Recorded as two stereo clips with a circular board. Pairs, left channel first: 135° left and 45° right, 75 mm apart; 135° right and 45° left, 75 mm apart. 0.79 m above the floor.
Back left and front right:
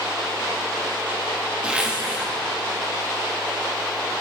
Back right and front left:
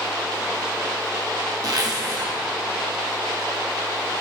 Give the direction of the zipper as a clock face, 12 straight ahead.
11 o'clock.